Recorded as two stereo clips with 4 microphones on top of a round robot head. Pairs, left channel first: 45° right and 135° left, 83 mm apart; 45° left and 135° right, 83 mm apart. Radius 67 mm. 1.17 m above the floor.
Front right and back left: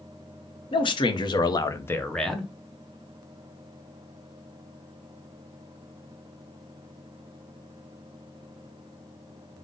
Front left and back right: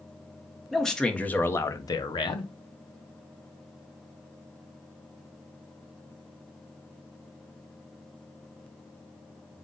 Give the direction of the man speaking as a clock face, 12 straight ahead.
1 o'clock.